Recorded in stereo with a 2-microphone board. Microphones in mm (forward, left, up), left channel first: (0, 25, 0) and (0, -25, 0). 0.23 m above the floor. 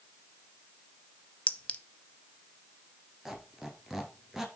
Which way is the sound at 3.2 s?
10° right (ahead or behind).